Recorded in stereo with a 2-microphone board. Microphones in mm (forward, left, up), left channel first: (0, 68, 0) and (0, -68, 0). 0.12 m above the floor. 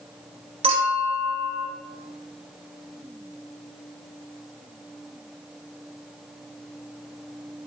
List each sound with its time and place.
0.6 s a clink: 45° right (ahead or behind), 1.2 m